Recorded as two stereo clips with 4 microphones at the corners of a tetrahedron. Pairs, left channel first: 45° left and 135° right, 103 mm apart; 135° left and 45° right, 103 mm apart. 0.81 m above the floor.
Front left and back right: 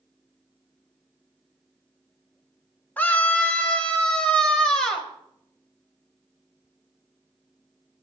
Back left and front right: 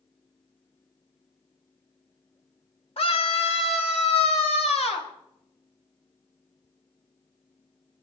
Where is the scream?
120° left, 2.5 m; by 5.1 s 130° left, 4.5 m.